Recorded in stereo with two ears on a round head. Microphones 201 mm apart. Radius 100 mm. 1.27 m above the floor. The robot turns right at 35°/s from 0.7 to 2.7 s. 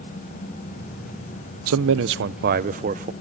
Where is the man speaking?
75° right, 0.5 m; by 3.1 s 40° right, 0.5 m.